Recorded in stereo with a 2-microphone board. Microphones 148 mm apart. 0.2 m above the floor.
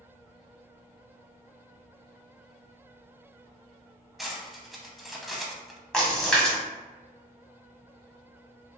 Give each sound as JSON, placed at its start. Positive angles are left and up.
{"t": 4.2, "sound": "cutlery clinking", "side_deg": 0, "distance_m": 0.7}
{"t": 5.9, "sound": "a splash", "side_deg": 5, "distance_m": 1.3}